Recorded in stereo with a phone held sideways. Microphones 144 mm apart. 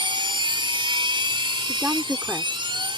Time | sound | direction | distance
0.0 | a machine running | 35° right (ahead or behind) | ?
1.7 | a woman speaking | 15° right (ahead or behind) | ?